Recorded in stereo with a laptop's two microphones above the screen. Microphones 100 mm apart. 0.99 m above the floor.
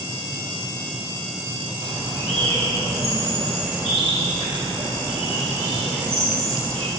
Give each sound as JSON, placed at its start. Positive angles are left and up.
{"t": 1.8, "sound": "a bird", "side_deg": -75, "distance_m": 1.5}